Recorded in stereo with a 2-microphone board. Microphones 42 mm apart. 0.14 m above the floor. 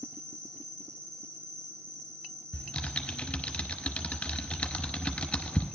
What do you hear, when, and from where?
0.0 s an insect: 70° right (ahead or behind), 1.8 m
2.5 s typing on a keyboard: 25° left (ahead or behind), 0.8 m